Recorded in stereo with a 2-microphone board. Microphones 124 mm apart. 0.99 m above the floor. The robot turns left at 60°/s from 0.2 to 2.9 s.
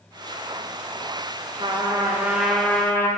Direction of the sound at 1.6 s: 125° right.